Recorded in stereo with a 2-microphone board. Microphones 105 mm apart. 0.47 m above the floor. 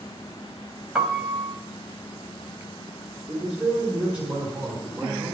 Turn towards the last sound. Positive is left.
turn(degrees=-10)  # may be behind; listen again after turning